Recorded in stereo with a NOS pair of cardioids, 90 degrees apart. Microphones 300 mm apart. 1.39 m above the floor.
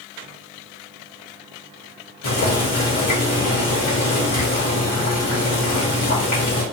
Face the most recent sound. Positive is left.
turn(degrees=60)